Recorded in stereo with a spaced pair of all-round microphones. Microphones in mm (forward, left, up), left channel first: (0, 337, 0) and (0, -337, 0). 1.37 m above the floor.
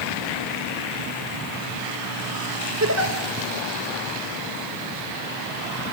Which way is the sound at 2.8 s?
25° right (ahead or behind).